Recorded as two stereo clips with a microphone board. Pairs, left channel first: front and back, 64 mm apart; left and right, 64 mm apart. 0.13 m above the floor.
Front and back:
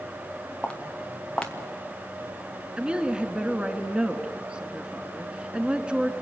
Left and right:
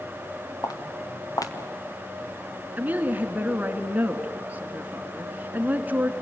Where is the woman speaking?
125° right, 1.6 m.